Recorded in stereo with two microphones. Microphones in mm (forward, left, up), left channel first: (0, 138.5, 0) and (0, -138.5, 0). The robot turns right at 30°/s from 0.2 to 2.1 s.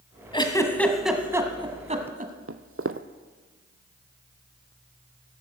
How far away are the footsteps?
About 0.7 m.